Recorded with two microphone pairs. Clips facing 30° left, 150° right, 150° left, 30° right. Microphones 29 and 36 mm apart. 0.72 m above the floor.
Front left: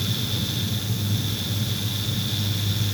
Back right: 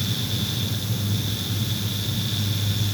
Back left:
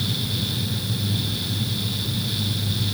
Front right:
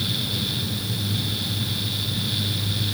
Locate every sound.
Only background noise.